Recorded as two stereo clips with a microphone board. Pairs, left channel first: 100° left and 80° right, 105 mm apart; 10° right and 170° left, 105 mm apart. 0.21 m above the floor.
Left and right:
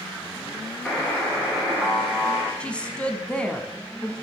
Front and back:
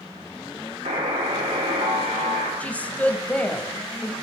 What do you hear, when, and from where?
0.8 s a buzzer: straight behind, 2 m
2.6 s a woman speaking: 40° left, 1.0 m